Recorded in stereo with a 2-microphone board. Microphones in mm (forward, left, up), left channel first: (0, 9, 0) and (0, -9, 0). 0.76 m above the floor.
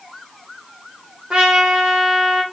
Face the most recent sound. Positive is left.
turn(degrees=-60)  # may be behind; listen again after turning